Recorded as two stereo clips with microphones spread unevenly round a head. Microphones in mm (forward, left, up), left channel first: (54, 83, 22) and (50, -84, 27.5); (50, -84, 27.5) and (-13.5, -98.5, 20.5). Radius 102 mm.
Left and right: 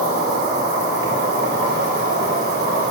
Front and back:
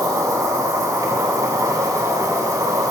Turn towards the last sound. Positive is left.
turn(degrees=-135)